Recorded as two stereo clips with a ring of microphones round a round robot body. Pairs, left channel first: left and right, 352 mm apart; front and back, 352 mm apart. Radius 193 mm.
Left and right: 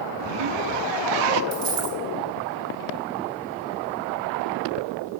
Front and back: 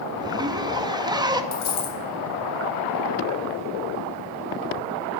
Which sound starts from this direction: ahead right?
A dropped coin, at 1.5 s.